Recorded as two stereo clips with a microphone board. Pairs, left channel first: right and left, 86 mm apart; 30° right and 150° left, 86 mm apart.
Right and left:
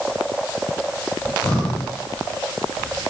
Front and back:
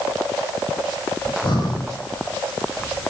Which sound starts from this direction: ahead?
Breathing, at 1.2 s.